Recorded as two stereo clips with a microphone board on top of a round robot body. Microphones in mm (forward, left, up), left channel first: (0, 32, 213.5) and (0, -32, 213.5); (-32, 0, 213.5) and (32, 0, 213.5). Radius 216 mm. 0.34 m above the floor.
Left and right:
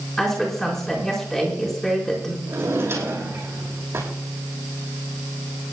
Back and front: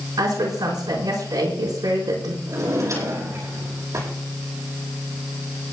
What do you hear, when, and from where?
0.2 s a woman speaking: 5° left, 5.5 m
2.5 s a drawer: 40° right, 7 m